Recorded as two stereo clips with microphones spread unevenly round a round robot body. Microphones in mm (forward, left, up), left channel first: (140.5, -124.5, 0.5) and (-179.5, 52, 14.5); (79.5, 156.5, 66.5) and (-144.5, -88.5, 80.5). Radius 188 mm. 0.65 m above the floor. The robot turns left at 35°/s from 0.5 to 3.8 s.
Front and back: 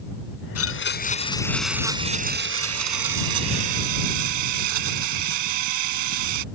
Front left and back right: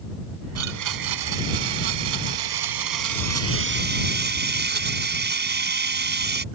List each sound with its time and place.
0.6 s a blender: 80° right; by 6.5 s 165° left